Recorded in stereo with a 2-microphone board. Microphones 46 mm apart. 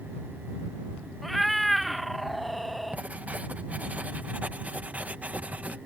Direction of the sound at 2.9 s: 30° right (ahead or behind).